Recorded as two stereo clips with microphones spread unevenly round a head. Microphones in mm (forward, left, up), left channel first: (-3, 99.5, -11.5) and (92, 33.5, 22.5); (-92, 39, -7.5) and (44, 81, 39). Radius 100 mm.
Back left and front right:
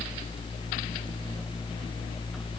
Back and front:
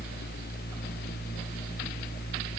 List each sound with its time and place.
Only background noise.